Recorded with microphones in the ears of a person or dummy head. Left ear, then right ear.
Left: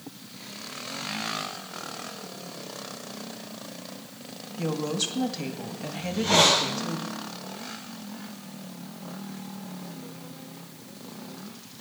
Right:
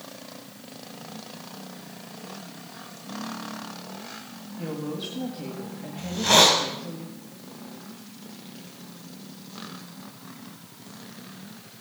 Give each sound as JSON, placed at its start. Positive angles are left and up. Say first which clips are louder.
{"t": 4.6, "sound": "a woman speaking", "louder": "left 5 dB", "side_deg": 85, "distance_m": 2.0}
{"t": 6.0, "sound": "a hiss", "louder": "right 3 dB", "side_deg": -75, "distance_m": 3.0}